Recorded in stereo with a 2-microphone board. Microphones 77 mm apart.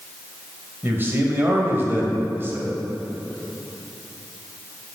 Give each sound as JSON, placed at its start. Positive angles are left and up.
{"t": 0.8, "sound": "a man speaking", "side_deg": -30, "distance_m": 1.3}